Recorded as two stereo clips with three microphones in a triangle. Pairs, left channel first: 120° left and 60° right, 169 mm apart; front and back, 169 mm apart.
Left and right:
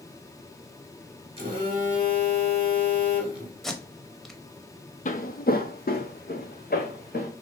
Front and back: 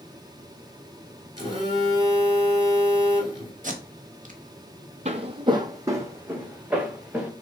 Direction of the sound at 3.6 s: 150° right.